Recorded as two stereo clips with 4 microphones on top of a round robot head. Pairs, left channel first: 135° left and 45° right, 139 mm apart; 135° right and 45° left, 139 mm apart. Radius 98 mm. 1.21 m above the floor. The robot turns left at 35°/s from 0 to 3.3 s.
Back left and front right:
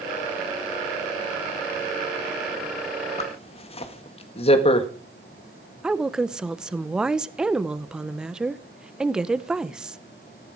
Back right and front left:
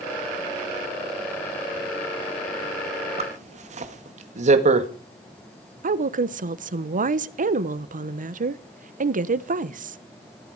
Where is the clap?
I don't hear a clap.